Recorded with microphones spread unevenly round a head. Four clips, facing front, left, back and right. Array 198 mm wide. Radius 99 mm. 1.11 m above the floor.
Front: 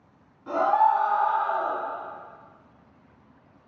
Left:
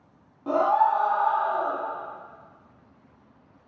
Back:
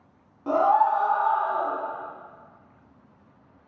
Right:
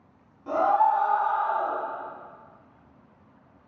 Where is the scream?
145° left, 0.5 m.